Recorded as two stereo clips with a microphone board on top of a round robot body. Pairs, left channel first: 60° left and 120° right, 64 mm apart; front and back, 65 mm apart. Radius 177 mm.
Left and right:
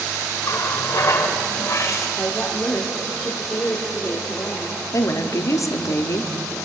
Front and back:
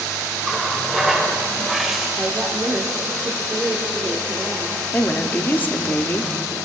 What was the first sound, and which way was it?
A running tap, 95° left.